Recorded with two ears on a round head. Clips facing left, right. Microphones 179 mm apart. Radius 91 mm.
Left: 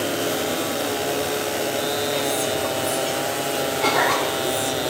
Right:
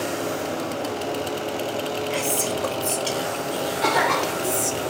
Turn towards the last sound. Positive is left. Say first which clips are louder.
# even
turn(degrees=-30)  # may be behind; listen again after turning